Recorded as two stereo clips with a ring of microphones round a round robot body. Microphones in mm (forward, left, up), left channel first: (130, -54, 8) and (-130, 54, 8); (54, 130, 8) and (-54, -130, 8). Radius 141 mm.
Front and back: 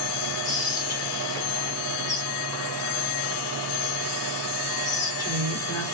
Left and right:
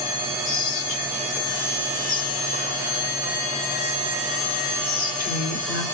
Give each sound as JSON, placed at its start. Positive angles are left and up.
{"t": 0.5, "sound": "whispering", "azimuth_deg": 45, "distance_m": 1.2}